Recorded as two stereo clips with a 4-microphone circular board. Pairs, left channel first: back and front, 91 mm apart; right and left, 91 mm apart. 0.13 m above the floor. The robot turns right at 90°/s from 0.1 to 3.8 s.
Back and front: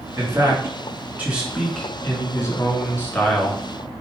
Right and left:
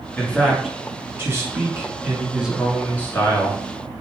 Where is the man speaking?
40° right, 1.7 m; by 3.6 s 90° right, 1.7 m.